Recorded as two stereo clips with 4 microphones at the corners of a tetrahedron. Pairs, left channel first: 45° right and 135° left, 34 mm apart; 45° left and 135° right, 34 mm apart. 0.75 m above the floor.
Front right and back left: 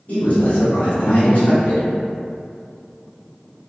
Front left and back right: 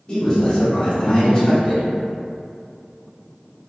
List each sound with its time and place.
0.1 s a man speaking: 15° right, 1.9 m